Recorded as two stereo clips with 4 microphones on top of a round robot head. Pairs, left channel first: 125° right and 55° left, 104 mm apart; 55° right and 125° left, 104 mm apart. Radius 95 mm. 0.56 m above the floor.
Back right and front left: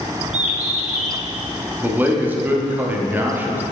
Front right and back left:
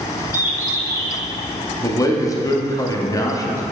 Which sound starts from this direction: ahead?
A man speaking, at 1.8 s.